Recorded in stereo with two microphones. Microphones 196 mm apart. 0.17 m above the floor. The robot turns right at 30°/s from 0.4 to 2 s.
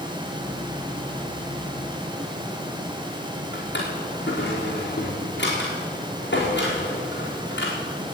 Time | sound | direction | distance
3.5 | a drawer | 60° left (ahead or behind) | 4 m